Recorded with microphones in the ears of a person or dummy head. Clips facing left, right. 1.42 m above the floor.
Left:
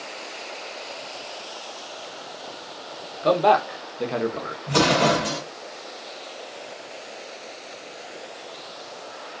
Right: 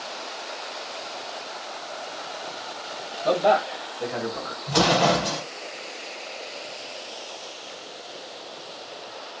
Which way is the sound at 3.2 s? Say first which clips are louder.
Left 2 dB; 75° left (ahead or behind).